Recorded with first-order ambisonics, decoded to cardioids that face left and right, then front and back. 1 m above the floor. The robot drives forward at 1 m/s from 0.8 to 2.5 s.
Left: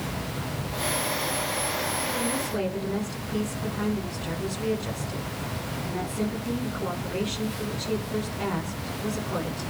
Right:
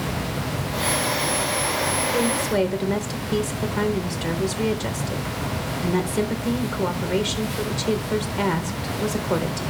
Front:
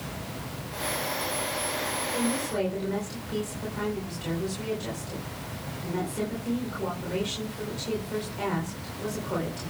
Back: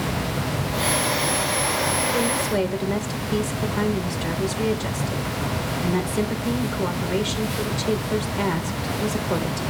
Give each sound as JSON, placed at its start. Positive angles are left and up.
{"t": 2.1, "sound": "a woman speaking", "azimuth_deg": -120, "distance_m": 4.0}